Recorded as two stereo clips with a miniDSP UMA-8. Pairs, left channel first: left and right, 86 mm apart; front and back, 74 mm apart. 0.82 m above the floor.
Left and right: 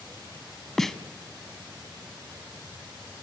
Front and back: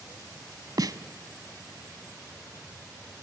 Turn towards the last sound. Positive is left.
turn(degrees=175)